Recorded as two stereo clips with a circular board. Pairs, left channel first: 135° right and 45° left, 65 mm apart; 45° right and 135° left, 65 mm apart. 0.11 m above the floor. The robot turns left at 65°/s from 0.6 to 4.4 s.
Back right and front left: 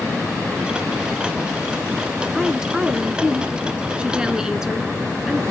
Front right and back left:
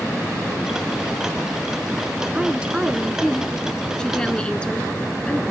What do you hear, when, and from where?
2.3 s a woman speaking: 120° left, 1.0 m; by 5.4 s 15° right, 1.0 m